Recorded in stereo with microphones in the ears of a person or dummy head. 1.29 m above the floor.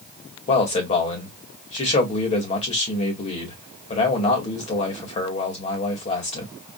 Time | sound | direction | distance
0.5 | a man speaking | 40° left (ahead or behind) | 1.8 m